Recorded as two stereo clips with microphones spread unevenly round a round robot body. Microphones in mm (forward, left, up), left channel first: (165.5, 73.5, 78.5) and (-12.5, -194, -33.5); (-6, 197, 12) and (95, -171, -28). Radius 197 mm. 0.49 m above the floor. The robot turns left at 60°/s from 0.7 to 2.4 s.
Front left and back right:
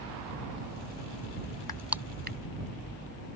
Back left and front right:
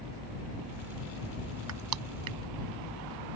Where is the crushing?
20° right; by 2.4 s 65° right.